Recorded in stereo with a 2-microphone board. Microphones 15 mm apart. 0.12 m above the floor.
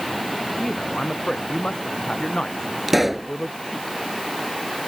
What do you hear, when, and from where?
0.6 s a man speaking: 45° left (ahead or behind)
2.9 s a pop: 10° right (ahead or behind)